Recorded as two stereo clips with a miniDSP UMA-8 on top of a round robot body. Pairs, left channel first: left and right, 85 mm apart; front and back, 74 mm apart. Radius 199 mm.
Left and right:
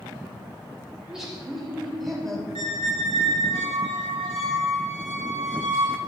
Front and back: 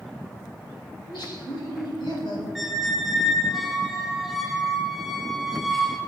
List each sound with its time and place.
1.0 s laughter: 5° right, 5 m; by 2.5 s 5° left, 5 m
2.5 s a squeak: 90° right, 3.5 m